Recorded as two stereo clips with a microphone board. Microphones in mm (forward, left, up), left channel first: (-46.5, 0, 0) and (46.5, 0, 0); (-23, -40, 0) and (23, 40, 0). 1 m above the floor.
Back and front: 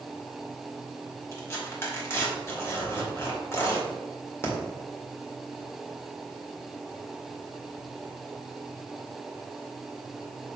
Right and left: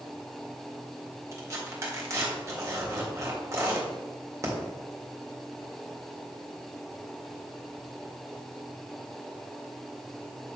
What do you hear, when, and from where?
1.3 s tearing paper: 115° left, 1.8 m